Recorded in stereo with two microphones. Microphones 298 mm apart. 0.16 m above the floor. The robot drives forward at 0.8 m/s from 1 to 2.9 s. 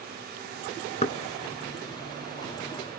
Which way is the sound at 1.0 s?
20° left (ahead or behind).